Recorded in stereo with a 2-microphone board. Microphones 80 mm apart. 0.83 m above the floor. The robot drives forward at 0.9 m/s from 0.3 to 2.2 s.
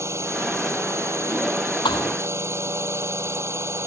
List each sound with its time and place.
0.0 s a drone: 35° right (ahead or behind)
1.9 s a thud: 70° left (ahead or behind)